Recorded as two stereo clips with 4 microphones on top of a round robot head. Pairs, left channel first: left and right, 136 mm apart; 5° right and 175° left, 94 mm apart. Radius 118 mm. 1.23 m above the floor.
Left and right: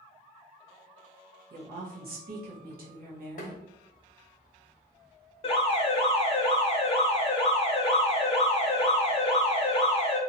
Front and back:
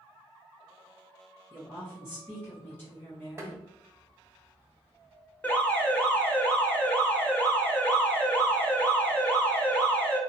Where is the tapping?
110° left, 0.7 m.